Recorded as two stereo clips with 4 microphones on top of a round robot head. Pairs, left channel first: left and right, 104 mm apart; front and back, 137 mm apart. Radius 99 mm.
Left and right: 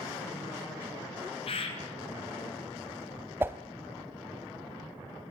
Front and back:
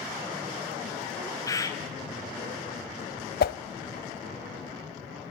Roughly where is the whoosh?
Ahead.